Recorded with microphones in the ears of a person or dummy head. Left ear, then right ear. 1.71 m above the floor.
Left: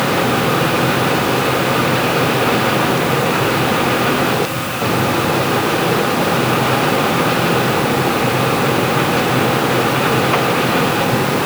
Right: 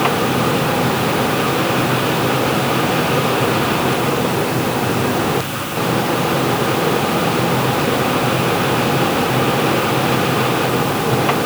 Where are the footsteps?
No footsteps in this recording.